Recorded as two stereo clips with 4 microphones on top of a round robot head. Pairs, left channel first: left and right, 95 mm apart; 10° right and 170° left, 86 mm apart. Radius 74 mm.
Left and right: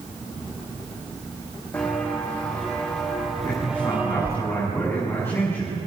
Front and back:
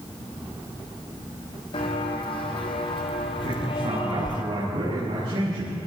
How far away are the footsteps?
About 3 m.